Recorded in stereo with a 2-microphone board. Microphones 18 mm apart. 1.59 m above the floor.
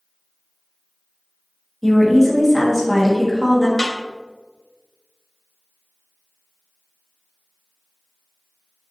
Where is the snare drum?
40° left (ahead or behind), 0.7 m.